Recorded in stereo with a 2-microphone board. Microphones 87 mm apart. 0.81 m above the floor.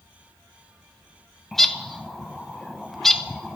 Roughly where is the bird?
Centre.